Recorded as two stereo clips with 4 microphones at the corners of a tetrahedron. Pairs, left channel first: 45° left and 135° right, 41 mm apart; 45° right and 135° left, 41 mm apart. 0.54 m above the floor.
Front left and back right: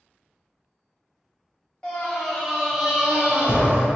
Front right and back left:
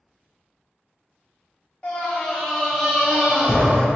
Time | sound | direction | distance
1.8 | a scream | straight ahead | 0.8 m